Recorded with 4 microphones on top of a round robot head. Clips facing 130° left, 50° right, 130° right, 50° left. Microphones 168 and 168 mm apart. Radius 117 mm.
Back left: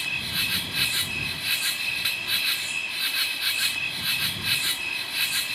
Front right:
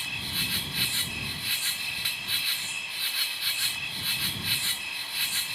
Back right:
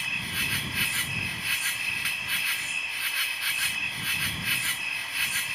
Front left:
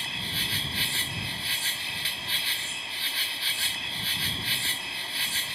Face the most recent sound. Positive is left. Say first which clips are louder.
# back left 1 dB, front left 1 dB
turn(degrees=110)